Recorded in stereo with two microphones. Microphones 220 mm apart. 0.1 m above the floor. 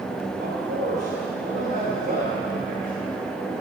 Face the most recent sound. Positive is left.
turn(degrees=-55)  # may be behind; listen again after turning